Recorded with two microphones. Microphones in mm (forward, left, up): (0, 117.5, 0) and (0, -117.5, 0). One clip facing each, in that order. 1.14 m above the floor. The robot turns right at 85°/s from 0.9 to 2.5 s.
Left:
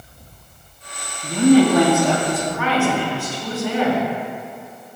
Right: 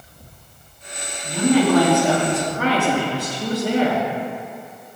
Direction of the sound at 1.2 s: 110° left.